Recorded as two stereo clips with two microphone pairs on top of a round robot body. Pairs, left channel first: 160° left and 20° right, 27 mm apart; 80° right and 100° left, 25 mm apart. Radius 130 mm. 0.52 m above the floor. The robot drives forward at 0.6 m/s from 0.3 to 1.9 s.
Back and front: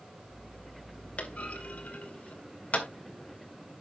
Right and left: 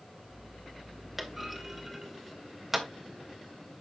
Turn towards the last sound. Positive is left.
turn(degrees=180)